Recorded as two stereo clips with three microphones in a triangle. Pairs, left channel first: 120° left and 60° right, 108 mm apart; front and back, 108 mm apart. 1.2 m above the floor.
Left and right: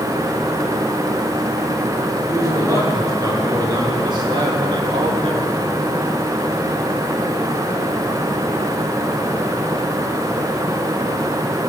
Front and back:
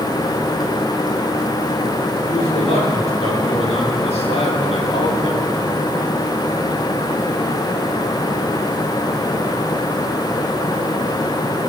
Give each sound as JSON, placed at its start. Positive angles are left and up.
{"t": 2.3, "sound": "a man speaking", "azimuth_deg": 0, "distance_m": 4.0}